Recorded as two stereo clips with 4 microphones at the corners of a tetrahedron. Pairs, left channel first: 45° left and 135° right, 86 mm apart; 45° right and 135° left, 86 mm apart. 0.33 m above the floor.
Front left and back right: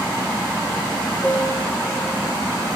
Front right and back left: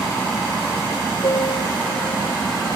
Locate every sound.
1.2 s a piano: 30° right, 1.3 m